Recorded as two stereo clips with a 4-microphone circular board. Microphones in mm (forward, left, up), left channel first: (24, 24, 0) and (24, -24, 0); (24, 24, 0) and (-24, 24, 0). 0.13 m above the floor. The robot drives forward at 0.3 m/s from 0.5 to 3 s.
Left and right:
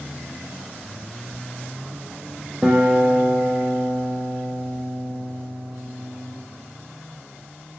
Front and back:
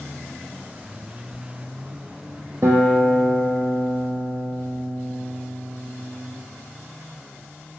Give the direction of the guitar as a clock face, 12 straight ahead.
5 o'clock.